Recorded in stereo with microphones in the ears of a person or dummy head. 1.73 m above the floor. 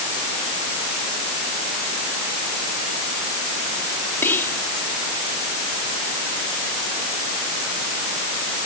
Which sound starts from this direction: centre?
Whispering, at 4.2 s.